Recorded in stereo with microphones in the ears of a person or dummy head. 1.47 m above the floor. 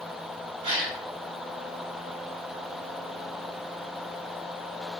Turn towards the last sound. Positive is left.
turn(degrees=-35)  # may be behind; listen again after turning